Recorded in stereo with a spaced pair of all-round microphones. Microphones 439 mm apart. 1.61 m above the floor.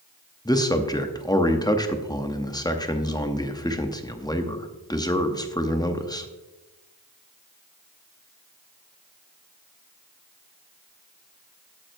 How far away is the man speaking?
About 0.7 m.